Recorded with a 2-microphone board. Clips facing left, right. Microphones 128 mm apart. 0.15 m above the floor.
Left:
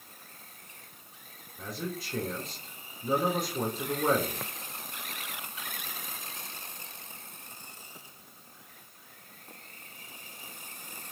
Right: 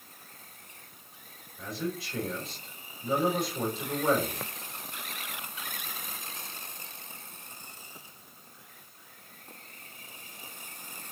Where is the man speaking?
45° left (ahead or behind), 1.4 m.